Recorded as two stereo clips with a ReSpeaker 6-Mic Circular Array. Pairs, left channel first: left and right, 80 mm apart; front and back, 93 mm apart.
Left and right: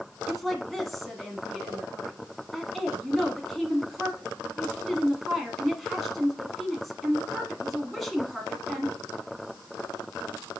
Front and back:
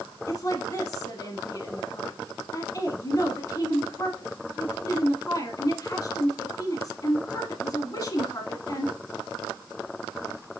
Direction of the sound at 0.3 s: Straight ahead.